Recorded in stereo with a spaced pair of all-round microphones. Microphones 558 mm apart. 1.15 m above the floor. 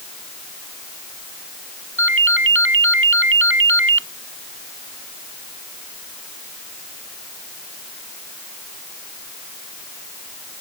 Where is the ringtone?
20° right (ahead or behind).